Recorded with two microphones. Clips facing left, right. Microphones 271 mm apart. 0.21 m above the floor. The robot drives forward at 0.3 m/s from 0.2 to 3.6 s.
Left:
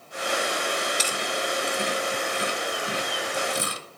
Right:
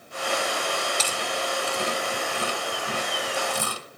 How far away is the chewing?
About 1.3 m.